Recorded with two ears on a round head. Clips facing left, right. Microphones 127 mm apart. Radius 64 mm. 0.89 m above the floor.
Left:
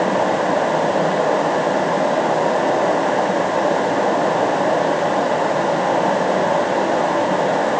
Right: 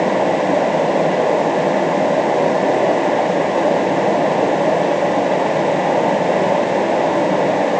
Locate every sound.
Only background noise.